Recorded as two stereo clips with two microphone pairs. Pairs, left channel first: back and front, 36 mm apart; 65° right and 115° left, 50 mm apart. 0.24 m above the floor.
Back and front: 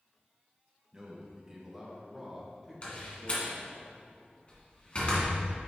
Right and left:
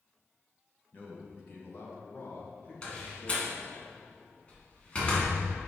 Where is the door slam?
130° right, 2 m.